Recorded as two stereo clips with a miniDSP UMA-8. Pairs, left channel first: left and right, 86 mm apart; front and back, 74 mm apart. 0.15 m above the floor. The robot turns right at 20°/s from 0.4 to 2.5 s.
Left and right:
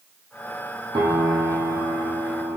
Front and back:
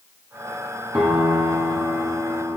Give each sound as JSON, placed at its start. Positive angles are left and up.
{"t": 0.9, "sound": "a piano", "azimuth_deg": -95, "distance_m": 2.5}